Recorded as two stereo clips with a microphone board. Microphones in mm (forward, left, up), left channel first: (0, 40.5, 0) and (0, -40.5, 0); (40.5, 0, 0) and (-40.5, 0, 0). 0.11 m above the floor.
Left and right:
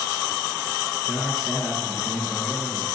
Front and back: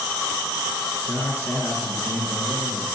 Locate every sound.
1.1 s a man speaking: 25° right, 1.8 m; by 3.0 s 55° left, 1.8 m